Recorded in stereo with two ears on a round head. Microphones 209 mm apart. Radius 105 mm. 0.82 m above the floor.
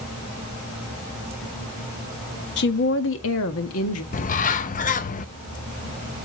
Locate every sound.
2.6 s a woman speaking: 50° left (ahead or behind), 1.1 m; by 4.0 s 70° left (ahead or behind), 1.7 m
4.1 s a bird: 35° left (ahead or behind), 0.7 m